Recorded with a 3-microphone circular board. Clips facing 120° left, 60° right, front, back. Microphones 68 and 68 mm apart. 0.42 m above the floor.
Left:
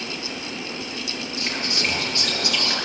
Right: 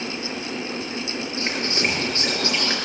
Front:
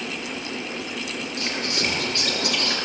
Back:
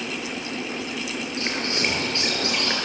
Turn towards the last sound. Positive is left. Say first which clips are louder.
# right 2 dB, back 1 dB
turn(degrees=-120)